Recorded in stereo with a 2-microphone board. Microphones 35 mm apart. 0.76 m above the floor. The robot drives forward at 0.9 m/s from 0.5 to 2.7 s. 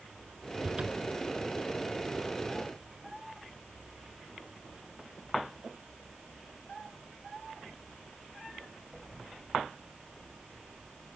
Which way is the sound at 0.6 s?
30° right (ahead or behind).